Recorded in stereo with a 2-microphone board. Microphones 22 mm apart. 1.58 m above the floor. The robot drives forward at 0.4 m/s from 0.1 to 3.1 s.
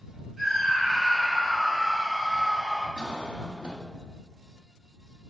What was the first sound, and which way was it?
A scream, centre (ahead or behind).